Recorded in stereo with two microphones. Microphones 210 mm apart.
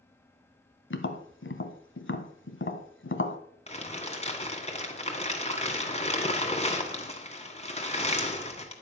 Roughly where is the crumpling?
Left.